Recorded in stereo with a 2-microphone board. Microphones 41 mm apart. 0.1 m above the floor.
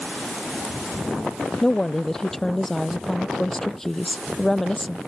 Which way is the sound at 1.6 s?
10° left (ahead or behind).